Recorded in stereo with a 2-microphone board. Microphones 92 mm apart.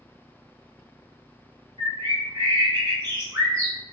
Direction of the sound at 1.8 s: 40° right (ahead or behind).